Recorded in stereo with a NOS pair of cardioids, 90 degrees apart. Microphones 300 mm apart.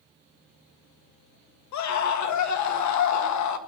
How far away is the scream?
About 1.6 m.